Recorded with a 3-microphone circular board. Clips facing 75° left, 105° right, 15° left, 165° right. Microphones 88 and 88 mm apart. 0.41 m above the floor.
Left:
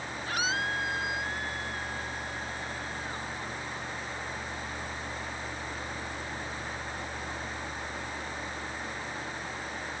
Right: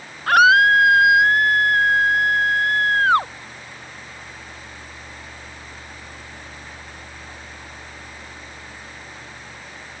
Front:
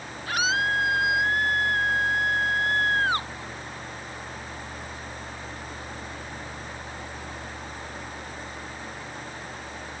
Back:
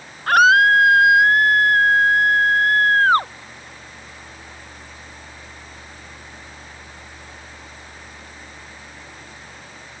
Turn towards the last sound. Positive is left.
turn(degrees=-120)